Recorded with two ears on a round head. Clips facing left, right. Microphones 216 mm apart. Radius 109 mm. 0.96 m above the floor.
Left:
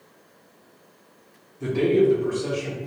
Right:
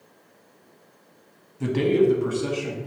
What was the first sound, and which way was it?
A man speaking, 70° right (ahead or behind).